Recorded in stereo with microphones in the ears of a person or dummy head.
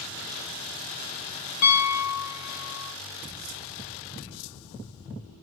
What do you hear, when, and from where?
1.6 s a piano: 50° left (ahead or behind), 0.7 m